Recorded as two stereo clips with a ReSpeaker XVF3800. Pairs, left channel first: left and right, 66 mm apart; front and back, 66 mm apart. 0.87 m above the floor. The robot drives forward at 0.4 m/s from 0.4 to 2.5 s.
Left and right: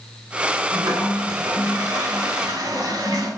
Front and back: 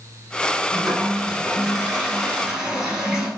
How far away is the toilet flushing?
About 9.5 m.